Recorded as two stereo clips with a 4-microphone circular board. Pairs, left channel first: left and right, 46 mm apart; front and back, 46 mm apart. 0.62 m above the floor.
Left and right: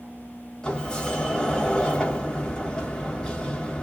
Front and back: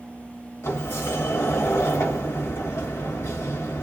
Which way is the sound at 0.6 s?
15° left.